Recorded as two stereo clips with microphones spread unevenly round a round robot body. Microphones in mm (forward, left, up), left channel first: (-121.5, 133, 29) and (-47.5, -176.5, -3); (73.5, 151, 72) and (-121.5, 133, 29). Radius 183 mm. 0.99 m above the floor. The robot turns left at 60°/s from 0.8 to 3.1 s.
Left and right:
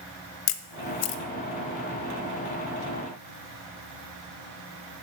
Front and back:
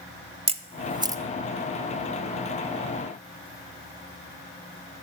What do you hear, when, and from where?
0.5 s a camera shutter: 145° left, 0.6 m; by 1.2 s 120° left, 0.6 m